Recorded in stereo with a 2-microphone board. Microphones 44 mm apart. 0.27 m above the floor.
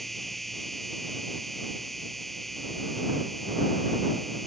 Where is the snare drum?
No snare drum in this recording.